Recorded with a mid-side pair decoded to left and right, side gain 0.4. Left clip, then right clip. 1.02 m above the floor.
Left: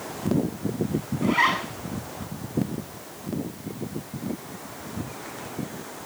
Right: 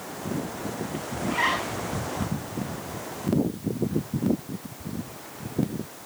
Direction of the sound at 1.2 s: 45° left.